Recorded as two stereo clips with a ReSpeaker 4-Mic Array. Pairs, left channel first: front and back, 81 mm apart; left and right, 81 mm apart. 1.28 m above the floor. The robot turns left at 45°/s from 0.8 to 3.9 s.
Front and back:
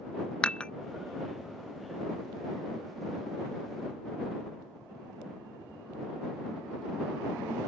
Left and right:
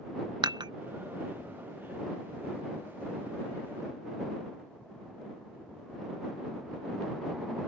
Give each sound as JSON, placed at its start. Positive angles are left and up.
{"t": 0.4, "sound": "dishes clattering", "azimuth_deg": -75}